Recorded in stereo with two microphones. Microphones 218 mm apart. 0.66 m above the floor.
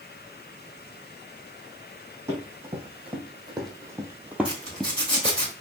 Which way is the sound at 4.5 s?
25° left (ahead or behind).